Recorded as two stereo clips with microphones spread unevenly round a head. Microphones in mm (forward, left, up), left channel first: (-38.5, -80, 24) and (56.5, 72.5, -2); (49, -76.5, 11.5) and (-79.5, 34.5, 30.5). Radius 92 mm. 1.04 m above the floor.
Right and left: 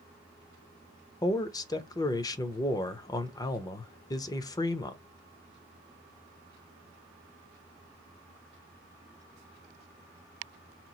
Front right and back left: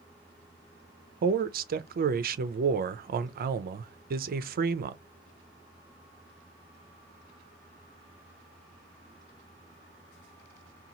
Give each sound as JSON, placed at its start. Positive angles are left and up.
{"t": 1.2, "sound": "a man speaking", "azimuth_deg": 165, "distance_m": 0.5}